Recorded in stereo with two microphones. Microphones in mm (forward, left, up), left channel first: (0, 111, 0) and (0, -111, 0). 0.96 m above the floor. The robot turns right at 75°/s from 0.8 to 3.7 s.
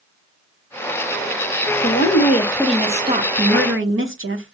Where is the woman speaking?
110° left, 1.0 m; by 4.5 s 110° right, 1.0 m.